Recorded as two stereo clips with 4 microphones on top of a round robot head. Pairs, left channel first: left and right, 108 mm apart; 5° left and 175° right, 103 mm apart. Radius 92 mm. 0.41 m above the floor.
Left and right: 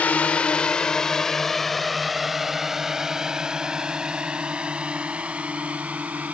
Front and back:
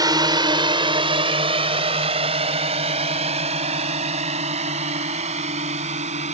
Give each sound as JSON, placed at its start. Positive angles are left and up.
{"t": 0.0, "sound": "a drone", "azimuth_deg": 165}